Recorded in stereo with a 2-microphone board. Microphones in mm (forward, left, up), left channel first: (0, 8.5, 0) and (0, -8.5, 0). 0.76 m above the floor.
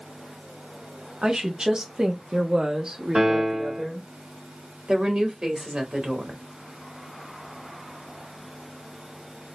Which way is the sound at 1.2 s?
55° right (ahead or behind).